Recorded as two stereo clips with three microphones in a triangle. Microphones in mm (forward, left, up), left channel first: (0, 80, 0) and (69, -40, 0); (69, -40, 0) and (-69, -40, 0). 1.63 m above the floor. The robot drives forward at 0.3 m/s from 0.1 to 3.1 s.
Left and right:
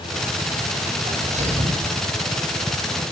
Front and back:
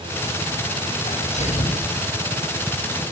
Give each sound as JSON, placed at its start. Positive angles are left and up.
{"t": 1.1, "sound": "a sneeze", "azimuth_deg": -30, "distance_m": 8.5}